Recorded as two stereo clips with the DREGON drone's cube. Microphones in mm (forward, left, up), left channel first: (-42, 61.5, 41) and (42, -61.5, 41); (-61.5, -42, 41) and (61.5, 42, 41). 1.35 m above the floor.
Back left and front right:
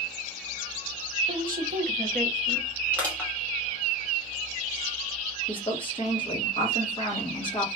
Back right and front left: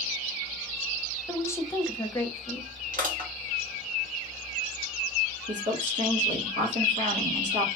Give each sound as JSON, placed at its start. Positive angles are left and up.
{"t": 1.3, "sound": "a woman speaking", "azimuth_deg": -75, "distance_m": 0.7}
{"t": 2.9, "sound": "crushing", "azimuth_deg": 45, "distance_m": 1.8}
{"t": 5.5, "sound": "a woman speaking", "azimuth_deg": 70, "distance_m": 1.3}